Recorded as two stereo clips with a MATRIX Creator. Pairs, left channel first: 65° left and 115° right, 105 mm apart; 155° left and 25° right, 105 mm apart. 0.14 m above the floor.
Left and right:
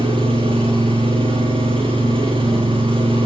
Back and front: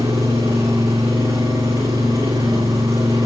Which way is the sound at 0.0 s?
80° right.